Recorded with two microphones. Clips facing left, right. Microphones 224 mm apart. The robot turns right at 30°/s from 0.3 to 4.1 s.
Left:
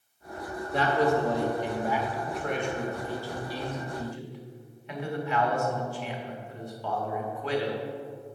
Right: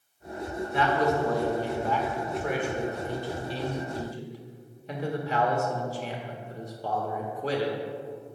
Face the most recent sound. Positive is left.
turn(degrees=-130)